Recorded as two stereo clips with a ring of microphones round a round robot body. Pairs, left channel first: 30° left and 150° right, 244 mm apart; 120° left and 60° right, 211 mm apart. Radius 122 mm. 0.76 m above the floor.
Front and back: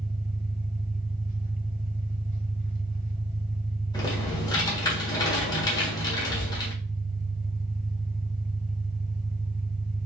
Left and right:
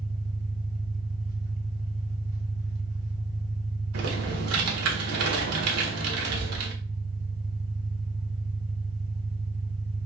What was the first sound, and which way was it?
An engine running, 90° right.